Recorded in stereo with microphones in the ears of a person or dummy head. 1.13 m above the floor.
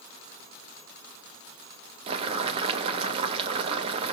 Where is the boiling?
30° right (ahead or behind), 0.5 m.